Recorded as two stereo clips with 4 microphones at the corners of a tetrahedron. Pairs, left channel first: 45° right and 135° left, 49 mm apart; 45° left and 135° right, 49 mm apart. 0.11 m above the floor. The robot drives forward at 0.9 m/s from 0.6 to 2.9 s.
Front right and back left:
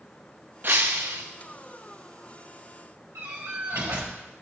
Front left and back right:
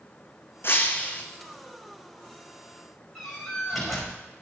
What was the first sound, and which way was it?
Breaking glass, 90° left.